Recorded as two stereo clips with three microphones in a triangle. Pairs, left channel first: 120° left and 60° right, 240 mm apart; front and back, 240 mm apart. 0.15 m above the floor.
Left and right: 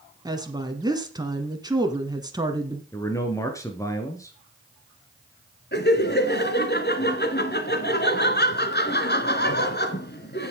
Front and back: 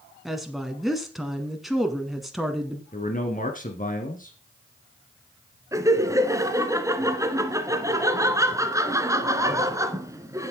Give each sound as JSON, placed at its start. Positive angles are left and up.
{"t": 0.2, "sound": "a woman speaking", "azimuth_deg": -90, "distance_m": 1.2}
{"t": 2.9, "sound": "a man speaking", "azimuth_deg": 45, "distance_m": 1.7}
{"t": 5.7, "sound": "laughter", "azimuth_deg": 105, "distance_m": 1.6}